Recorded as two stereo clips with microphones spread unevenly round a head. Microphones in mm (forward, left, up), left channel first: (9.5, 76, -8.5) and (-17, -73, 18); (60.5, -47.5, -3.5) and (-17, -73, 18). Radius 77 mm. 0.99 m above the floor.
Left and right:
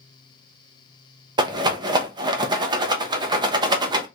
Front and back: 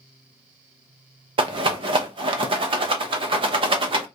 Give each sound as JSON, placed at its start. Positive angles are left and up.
{"t": 1.4, "sound": "a rattle", "azimuth_deg": -165, "distance_m": 0.7}